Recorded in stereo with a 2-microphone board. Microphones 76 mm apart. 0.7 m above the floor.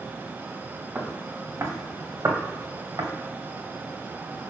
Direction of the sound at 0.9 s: 25° right (ahead or behind).